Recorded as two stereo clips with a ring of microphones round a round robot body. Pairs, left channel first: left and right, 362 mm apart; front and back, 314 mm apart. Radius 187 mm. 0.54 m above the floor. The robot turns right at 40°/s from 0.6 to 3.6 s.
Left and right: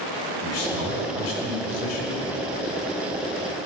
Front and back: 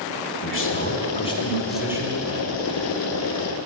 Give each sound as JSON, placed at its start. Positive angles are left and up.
{"t": 0.4, "sound": "a man speaking", "azimuth_deg": 45, "distance_m": 1.9}